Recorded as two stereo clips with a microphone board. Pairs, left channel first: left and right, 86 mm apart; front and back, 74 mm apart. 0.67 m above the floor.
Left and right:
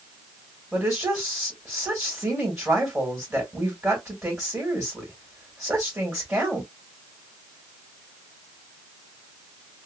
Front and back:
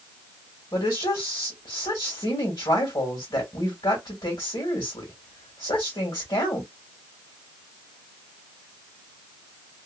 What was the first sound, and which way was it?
A woman speaking, 10° right.